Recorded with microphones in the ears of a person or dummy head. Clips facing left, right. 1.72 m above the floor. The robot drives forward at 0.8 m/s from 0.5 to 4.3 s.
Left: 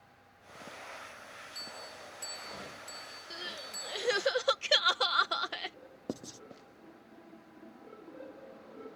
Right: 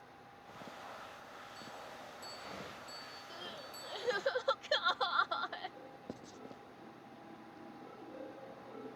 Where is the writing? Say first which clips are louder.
Left 10 dB; 60° left (ahead or behind).